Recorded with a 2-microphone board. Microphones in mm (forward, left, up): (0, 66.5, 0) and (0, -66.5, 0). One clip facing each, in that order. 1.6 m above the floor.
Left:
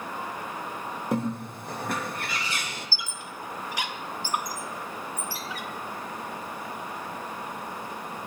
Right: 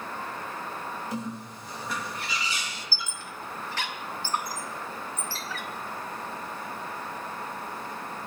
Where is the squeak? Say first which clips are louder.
Left 1 dB; 15° left (ahead or behind), 0.5 m.